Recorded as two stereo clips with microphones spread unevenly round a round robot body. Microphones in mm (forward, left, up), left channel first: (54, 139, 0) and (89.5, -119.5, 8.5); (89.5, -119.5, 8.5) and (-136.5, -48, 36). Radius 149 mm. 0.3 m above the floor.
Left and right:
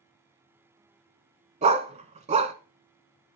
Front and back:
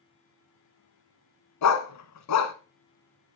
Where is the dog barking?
15° right, 1.1 m.